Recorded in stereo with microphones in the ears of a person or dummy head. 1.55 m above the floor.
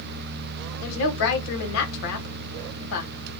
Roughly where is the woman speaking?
Left.